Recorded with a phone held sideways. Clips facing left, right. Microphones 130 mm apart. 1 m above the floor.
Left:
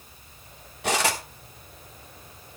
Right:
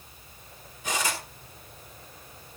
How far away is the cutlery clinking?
About 1.4 m.